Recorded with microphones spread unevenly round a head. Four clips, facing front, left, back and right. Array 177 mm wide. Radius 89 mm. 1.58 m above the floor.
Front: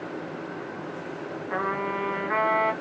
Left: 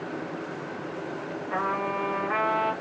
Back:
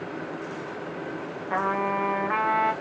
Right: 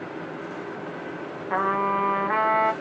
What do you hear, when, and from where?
1.5 s a trumpet: 120° right, 1.1 m